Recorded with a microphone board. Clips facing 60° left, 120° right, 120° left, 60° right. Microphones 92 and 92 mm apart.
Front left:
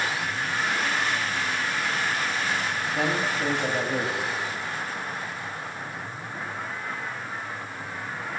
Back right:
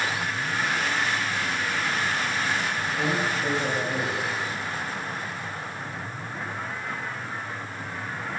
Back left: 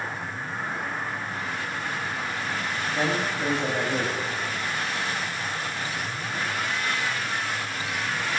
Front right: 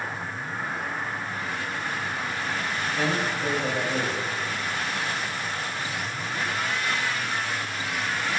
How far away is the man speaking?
About 1.2 m.